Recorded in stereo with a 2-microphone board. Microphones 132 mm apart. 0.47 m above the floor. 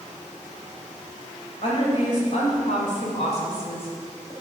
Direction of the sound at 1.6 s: 55° left (ahead or behind).